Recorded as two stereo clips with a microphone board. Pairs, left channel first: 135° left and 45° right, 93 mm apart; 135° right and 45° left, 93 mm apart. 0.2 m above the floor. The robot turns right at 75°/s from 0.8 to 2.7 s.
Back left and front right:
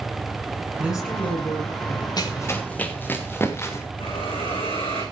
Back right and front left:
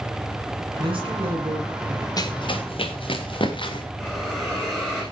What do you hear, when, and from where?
0.8 s a woman speaking: 30° left, 5 m; by 2.1 s 120° left, 5 m
2.2 s running footsteps: straight behind, 2.5 m; by 3.9 s 165° right, 3 m
4.0 s a hiss: 140° left, 9 m